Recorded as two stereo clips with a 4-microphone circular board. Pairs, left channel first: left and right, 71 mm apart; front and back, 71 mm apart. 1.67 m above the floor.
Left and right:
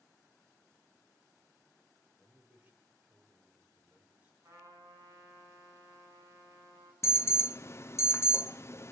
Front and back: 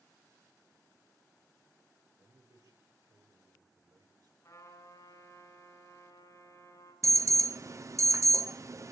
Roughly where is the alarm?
Behind left.